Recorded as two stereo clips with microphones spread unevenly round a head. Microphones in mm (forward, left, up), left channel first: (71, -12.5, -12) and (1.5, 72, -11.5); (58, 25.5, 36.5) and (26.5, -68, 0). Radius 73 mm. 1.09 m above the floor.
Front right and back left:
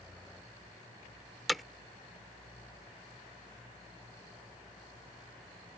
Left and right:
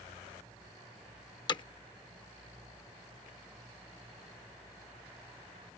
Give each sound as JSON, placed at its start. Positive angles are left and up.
{"t": 1.5, "sound": "hammering", "azimuth_deg": 40}